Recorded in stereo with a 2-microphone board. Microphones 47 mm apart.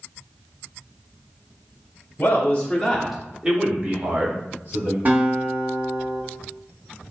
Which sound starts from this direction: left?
A man speaking, at 2.2 s.